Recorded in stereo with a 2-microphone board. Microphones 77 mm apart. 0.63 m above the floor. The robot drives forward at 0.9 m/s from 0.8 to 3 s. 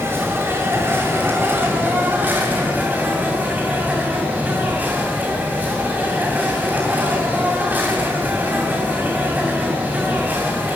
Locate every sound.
0.0 s an insect: 35° right (ahead or behind), 5.5 m; by 10.8 s 25° right (ahead or behind), 7.5 m